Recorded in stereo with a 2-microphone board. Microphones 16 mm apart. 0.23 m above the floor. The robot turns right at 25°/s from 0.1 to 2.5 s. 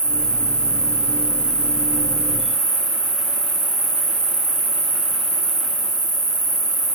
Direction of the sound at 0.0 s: 90° left.